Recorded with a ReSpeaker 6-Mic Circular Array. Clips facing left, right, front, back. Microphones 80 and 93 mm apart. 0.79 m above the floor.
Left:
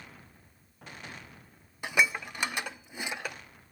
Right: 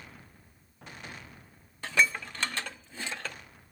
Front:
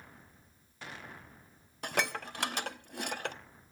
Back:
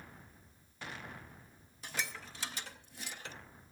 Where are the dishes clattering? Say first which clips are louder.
Even, front 9 dB; 15° left, 0.6 m.